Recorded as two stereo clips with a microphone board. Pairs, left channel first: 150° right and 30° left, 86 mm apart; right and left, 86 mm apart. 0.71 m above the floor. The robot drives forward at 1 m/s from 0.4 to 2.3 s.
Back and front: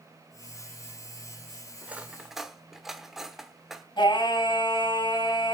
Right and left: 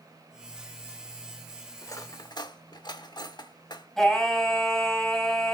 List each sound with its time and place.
1.8 s cutlery clinking: 40° right, 1.4 m; by 3.9 s 55° right, 1.1 m
4.0 s singing: 170° right, 3 m